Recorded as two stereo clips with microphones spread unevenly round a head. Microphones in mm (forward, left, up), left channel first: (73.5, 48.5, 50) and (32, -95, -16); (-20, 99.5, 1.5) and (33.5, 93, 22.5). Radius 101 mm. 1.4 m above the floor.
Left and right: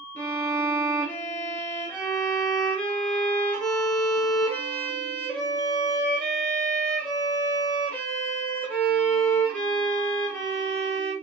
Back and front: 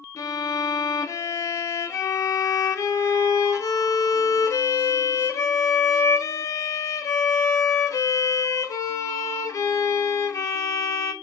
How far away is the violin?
About 0.6 m.